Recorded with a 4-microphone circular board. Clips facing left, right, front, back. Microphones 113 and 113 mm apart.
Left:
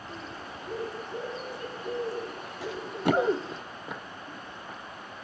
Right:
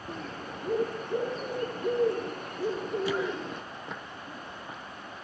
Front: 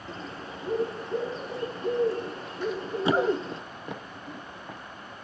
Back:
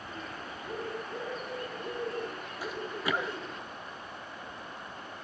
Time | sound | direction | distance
0.1 | a bird | 60° right | 4 m
2.6 | running footsteps | 95° left | 0.9 m